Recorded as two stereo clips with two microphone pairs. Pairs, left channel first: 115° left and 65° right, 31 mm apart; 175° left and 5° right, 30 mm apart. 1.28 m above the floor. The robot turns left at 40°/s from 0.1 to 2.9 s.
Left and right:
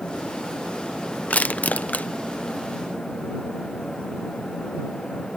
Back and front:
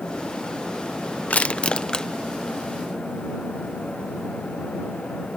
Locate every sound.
1.3 s crushing: 135° left; by 2.1 s 105° left